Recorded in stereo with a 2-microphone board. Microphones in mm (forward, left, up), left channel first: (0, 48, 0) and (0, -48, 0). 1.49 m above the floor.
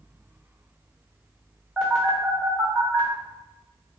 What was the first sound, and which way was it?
A phone buzzing, 10° right (ahead or behind).